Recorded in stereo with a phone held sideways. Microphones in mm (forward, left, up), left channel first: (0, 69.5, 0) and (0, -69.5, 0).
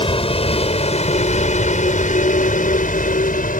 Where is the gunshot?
I don't hear a gunshot.